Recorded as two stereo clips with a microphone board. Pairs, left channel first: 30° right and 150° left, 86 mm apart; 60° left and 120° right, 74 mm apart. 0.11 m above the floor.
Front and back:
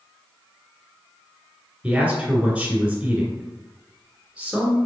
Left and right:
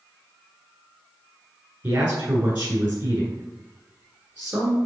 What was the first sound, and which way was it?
A man speaking, 150° right.